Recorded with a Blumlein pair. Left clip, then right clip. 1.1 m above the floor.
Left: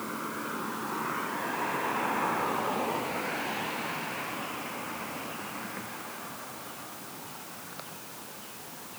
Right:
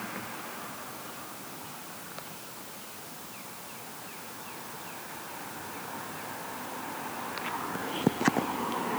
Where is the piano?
I don't hear a piano.